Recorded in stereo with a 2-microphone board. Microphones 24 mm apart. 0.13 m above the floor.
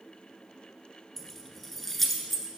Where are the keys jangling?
5° left (ahead or behind), 1.0 m.